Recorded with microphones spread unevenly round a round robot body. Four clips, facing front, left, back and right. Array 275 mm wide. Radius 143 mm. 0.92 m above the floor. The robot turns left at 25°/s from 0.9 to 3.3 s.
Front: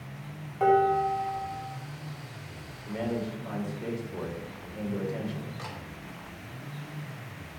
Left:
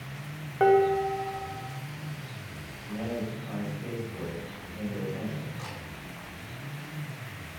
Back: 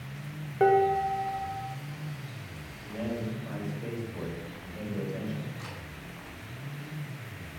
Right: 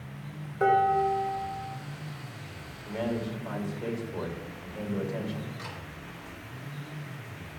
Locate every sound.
0.6 s dishes clattering: 160° left, 1.9 m; by 1.8 s 140° left, 1.9 m
2.9 s a man speaking: 20° right, 2.5 m; by 5.5 s 30° right, 2.5 m
5.6 s a camera shutter: 20° left, 3 m